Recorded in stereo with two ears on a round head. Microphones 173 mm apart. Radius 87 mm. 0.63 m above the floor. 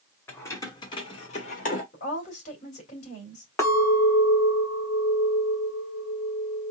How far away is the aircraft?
No aircraft in this recording.